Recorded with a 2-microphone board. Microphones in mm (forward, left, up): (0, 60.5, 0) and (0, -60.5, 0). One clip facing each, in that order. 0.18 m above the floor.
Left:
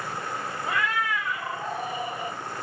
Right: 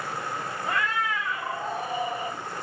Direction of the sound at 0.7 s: 5° left (ahead or behind).